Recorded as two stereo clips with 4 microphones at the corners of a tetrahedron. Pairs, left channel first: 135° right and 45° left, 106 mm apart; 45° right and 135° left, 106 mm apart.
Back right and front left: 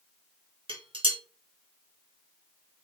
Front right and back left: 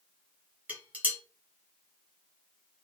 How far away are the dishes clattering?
About 1.1 m.